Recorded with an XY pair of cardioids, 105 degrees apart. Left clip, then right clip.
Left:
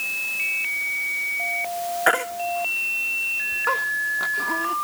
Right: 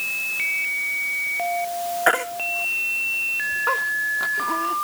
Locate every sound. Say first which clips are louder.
2.1 s a baby crying: even; 5° left